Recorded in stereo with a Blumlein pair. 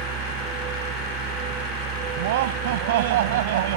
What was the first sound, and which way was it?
A machine running, 30° right.